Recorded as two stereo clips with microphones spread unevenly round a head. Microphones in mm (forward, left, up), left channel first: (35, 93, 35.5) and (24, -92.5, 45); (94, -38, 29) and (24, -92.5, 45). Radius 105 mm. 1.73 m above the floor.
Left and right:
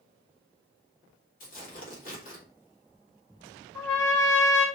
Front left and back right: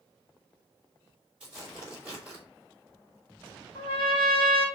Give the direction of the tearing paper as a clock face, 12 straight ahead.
7 o'clock.